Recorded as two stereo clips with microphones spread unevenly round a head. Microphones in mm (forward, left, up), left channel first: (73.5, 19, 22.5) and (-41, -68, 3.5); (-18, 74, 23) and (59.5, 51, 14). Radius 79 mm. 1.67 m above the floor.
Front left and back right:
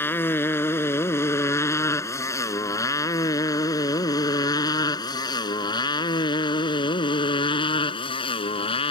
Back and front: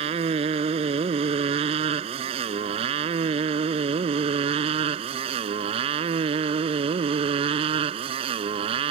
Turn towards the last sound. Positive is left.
turn(degrees=-15)